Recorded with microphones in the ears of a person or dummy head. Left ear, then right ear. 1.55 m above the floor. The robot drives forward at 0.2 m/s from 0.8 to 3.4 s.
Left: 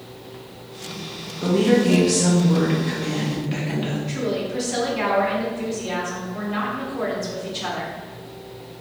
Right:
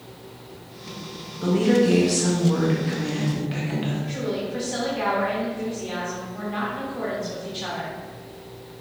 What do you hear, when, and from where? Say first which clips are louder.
1.4 s a woman speaking: left 1 dB; 5° left (ahead or behind), 0.5 m
4.1 s a woman speaking: left 3 dB; 5° left (ahead or behind), 1.2 m